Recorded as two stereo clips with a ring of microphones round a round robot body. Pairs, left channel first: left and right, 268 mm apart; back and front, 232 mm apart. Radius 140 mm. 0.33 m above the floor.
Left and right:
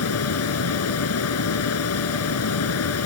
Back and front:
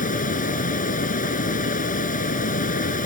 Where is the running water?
125° left.